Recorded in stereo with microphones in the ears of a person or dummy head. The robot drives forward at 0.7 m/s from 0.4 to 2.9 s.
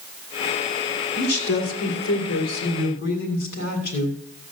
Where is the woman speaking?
75° left (ahead or behind), 3 m; by 4.2 s 60° left (ahead or behind), 3.5 m.